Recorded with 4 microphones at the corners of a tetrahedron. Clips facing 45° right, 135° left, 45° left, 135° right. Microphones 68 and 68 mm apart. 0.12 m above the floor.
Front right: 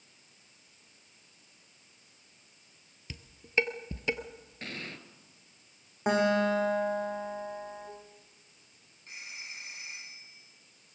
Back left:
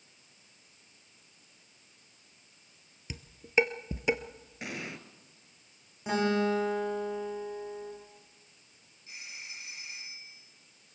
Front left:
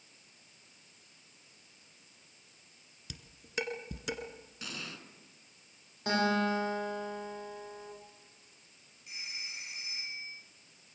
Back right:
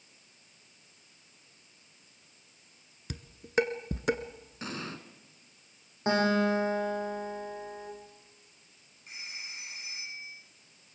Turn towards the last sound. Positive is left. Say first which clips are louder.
# front right 1 dB, back right 1 dB
turn(degrees=-85)